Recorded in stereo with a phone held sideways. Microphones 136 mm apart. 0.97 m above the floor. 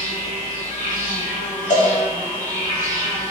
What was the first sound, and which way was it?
An insect, 75° left (ahead or behind).